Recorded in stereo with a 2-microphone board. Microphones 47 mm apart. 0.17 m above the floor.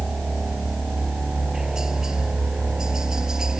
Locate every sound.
0.0 s a helicopter: 10° right (ahead or behind); by 3.6 s 15° right (ahead or behind)